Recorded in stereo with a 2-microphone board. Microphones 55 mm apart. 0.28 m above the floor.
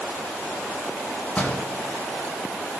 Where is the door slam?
30° left (ahead or behind), 2 m.